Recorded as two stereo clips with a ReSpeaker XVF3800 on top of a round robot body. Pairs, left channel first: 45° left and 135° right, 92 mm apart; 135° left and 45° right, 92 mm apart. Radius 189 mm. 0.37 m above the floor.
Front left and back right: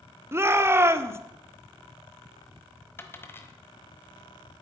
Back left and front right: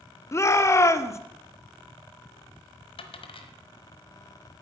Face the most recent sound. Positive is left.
turn(degrees=110)